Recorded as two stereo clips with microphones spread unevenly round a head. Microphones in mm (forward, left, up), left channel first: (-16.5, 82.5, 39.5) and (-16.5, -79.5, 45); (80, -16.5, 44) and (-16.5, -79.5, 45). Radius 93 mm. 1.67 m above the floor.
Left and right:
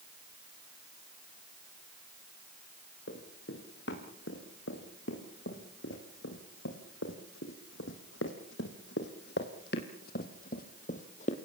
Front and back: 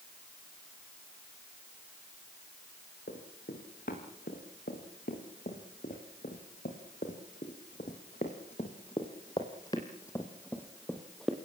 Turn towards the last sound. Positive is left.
turn(degrees=125)